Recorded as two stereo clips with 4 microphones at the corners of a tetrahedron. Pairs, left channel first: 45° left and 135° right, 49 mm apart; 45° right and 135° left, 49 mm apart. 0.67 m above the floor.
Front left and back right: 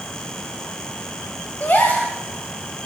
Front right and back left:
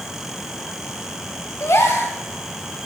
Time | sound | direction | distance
1.6 | a gasp | 10° right | 1.4 m